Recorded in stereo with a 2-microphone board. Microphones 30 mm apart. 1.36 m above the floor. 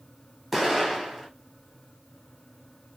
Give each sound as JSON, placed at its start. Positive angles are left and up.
{"t": 0.5, "sound": "an explosion", "side_deg": -5, "distance_m": 0.9}